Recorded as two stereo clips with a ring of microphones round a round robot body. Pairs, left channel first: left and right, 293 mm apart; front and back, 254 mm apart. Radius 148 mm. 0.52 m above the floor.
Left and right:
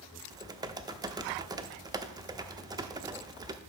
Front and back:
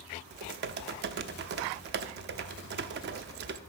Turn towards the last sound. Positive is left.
turn(degrees=-160)